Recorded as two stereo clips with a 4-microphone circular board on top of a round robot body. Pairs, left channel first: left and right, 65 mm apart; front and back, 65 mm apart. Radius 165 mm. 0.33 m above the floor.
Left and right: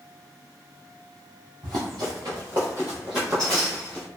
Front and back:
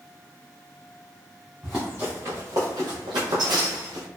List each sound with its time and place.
1.6 s running footsteps: 95° right, 0.7 m; by 4.1 s 160° left, 1.0 m